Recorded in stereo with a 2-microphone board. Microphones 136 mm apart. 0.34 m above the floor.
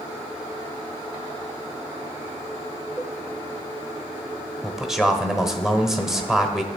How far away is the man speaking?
About 1.0 m.